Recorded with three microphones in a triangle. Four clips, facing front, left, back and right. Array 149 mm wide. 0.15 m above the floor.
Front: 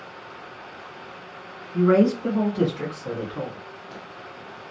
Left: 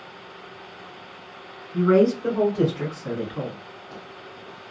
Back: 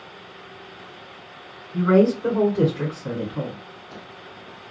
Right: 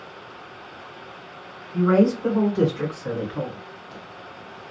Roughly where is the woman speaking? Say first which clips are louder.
Even, back 1 dB; behind.